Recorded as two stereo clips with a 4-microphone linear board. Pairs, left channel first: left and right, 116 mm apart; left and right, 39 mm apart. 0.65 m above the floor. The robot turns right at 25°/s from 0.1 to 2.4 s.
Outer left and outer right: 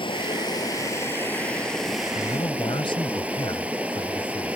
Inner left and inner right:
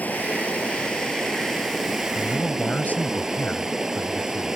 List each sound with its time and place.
0.0 s running water: 135° left; by 4.5 s 170° right
2.1 s a man speaking: 50° left (ahead or behind); by 4.5 s 45° left (ahead or behind)